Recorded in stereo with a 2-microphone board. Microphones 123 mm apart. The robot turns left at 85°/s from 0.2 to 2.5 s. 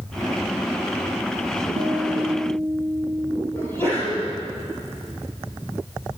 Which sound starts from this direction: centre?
A sneeze, at 3.5 s.